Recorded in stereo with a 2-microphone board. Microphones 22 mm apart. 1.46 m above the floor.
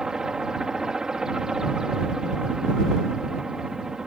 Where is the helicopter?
25° right (ahead or behind).